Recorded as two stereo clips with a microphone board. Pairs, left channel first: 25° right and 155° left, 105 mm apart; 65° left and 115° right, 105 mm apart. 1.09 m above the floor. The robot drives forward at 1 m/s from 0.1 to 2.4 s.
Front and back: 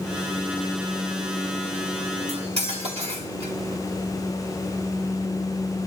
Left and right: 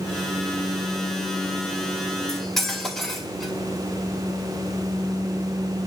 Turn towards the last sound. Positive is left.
turn(degrees=155)